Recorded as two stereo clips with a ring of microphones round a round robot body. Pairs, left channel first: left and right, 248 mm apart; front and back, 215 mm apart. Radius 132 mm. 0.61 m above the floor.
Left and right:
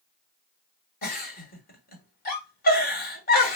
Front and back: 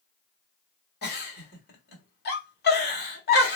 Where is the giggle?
35° left, 1.3 m.